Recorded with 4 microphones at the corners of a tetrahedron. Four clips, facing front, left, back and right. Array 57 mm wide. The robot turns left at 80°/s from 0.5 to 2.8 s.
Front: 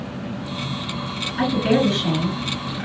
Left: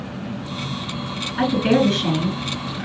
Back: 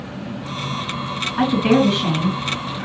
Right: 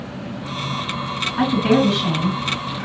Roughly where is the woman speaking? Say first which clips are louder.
Right 1 dB, back 3 dB; behind right.